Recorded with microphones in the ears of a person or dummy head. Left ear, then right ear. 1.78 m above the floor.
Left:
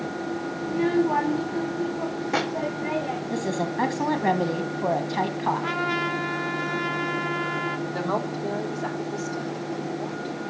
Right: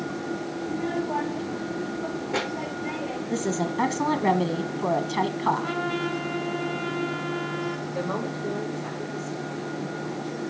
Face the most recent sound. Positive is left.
turn(degrees=85)